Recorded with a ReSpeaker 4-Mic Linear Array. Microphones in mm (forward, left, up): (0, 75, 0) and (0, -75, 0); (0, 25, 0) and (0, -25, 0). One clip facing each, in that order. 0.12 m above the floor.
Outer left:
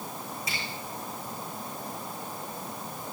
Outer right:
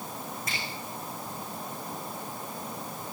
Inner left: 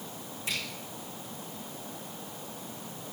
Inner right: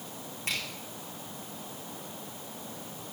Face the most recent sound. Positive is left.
turn(degrees=-55)  # may be behind; listen again after turning